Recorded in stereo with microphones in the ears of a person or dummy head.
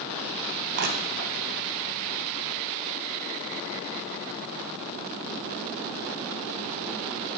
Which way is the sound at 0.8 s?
50° right (ahead or behind).